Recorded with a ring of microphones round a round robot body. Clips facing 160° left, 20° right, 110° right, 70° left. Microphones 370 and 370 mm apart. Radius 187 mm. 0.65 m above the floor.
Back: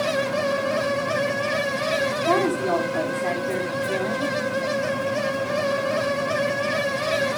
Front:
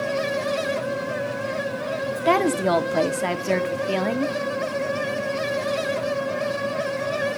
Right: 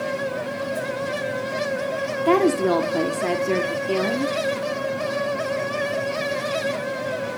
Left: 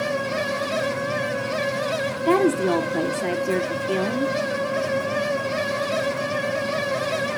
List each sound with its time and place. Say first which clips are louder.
2.2 s a woman speaking: front 2 dB, right 1 dB; 20° right, 1.2 m